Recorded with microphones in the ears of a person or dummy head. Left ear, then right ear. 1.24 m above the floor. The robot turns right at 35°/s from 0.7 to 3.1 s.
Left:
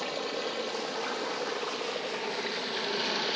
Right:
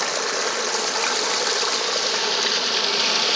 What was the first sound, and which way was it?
Running water, 125° right.